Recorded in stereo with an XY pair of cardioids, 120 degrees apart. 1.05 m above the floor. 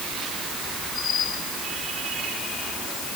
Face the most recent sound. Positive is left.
No sound to turn to.